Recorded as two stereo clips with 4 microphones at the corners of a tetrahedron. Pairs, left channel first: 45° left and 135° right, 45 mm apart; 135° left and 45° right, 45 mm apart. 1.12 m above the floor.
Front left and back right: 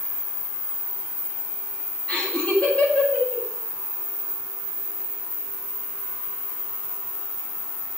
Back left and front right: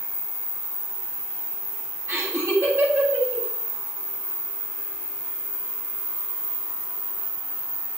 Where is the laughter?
20° right, 7.5 m.